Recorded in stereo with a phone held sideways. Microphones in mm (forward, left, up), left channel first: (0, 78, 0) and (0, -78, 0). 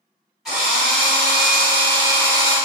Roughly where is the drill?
Centre.